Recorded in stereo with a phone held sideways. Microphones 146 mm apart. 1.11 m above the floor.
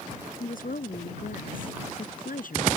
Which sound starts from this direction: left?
A woman speaking, at 0.4 s.